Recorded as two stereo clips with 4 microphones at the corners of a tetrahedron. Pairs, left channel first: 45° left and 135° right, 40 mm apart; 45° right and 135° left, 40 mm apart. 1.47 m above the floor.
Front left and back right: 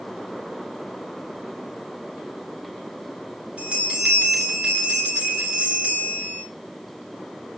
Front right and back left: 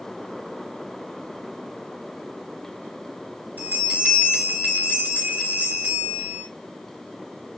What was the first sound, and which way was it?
A bell, 165° left.